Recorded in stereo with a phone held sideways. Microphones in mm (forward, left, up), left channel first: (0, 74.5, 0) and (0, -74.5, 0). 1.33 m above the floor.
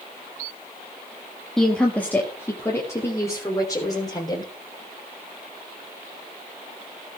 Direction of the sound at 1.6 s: 5° left (ahead or behind).